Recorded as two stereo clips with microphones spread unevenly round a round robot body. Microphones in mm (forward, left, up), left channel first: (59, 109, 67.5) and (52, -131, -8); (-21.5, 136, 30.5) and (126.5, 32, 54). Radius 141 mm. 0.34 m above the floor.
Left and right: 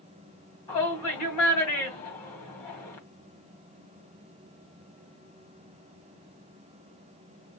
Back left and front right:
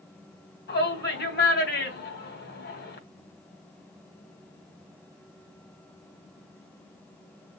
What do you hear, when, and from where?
0.7 s a shout: 160° left, 3 m